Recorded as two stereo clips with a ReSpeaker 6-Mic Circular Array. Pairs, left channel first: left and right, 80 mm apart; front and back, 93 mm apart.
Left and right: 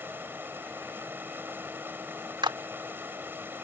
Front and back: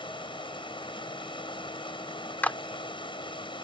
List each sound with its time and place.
0.0 s running water: 25° right
2.4 s a clap: 75° right